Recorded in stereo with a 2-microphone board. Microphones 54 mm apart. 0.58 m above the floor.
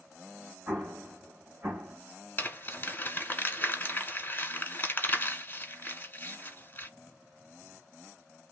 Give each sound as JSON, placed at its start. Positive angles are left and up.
{"t": 0.7, "sound": "an explosion", "side_deg": -40, "distance_m": 1.3}
{"t": 2.4, "sound": "crumpling", "side_deg": 30, "distance_m": 1.3}